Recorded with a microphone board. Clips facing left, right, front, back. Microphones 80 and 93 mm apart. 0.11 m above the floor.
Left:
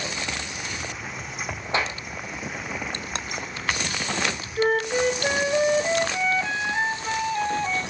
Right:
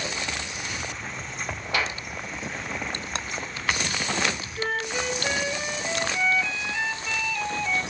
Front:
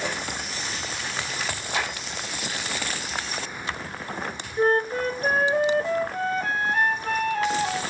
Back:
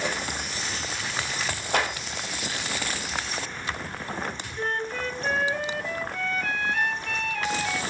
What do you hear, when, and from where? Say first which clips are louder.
1.7 s a clap: left 2 dB, back 4 dB; 150° left, 2.5 m
4.6 s a flute: left 9 dB, front 9 dB; 50° left, 0.9 m